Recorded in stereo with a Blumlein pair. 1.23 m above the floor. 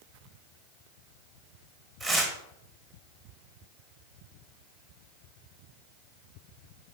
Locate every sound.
2.0 s tearing paper: 10° right, 1.0 m